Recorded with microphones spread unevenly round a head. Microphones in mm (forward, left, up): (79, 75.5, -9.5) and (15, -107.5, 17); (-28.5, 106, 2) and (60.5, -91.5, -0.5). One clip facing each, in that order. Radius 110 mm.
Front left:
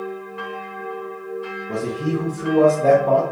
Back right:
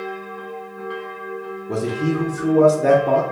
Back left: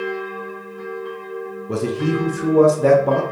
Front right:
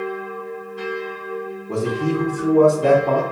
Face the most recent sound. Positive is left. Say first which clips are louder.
# back right 2 dB, back left 1 dB
turn(degrees=180)